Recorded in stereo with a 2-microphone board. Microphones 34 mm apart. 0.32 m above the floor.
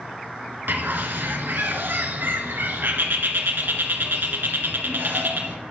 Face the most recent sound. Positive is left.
turn(degrees=-75)  # may be behind; listen again after turning